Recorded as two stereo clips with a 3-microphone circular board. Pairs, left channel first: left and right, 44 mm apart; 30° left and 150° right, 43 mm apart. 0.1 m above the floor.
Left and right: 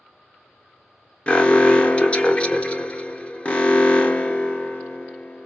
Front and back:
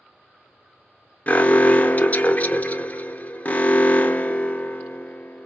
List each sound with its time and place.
1.3 s an alarm: 50° left, 0.9 m